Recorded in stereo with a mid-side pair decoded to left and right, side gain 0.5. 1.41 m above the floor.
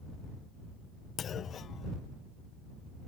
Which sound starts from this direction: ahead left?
A clunk, at 1.2 s.